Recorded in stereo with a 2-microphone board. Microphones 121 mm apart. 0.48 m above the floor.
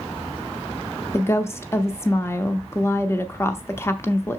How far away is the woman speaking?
About 0.7 m.